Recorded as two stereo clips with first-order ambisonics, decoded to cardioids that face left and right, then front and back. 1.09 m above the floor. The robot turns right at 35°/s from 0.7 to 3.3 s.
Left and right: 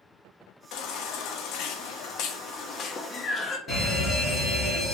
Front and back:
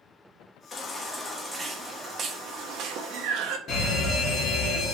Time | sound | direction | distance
0.7 | a baby crying | 65° left | 0.5 m
3.7 | a fire alarm | 35° left | 1.5 m